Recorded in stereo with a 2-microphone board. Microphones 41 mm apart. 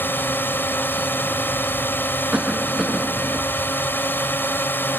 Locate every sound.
0.0 s a drone: 60° left (ahead or behind)
2.3 s a cough: 20° right (ahead or behind)